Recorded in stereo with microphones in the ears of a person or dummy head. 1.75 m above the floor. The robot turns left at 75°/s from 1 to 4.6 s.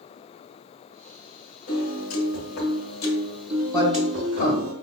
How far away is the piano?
About 1.2 m.